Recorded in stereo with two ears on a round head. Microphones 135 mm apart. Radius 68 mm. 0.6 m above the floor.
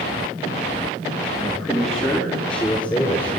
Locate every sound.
1.4 s a man speaking: centre (ahead or behind), 7.5 m; by 3.4 s 10° left (ahead or behind), 10 m